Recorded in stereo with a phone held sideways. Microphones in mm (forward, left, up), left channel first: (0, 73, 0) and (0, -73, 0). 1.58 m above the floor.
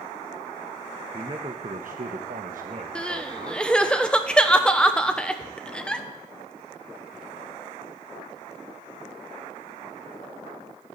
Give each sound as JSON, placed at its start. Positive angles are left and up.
{"t": 1.1, "sound": "a man speaking", "side_deg": -30, "distance_m": 1.4}
{"t": 3.0, "sound": "crying", "side_deg": 5, "distance_m": 1.2}